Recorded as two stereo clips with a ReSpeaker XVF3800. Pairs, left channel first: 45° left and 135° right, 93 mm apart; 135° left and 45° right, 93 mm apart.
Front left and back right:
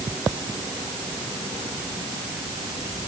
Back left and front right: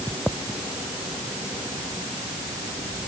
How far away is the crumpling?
No crumpling in this recording.